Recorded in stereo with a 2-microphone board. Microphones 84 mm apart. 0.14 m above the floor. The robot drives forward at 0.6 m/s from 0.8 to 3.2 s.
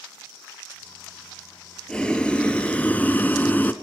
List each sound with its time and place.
1.9 s boiling: 10° left (ahead or behind), 1.2 m; by 3.7 s 20° left (ahead or behind), 0.6 m